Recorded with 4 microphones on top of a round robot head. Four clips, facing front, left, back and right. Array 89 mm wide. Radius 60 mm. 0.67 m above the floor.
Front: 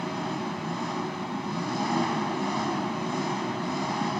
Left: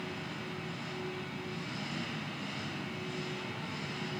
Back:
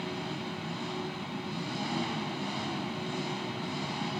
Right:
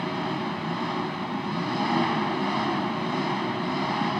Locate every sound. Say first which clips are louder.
0.0 s an engine running: right 13 dB, front 6 dB; 65° right